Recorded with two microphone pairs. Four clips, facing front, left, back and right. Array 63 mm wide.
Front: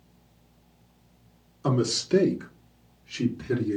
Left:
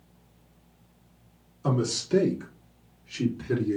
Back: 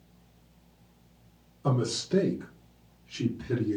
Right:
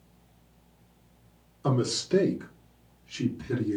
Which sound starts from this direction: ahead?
A man speaking, at 1.6 s.